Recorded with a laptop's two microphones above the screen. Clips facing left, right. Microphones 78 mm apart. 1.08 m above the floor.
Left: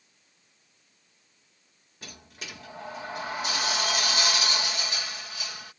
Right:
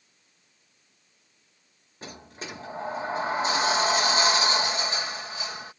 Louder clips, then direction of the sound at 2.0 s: Right 5 dB; 30° right (ahead or behind).